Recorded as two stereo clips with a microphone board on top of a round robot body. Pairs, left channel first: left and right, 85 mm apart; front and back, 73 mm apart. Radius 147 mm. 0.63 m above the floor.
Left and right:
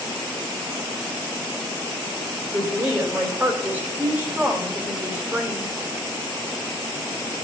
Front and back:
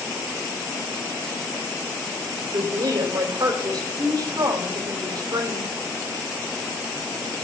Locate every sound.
2.5 s a woman speaking: 160° right, 3.5 m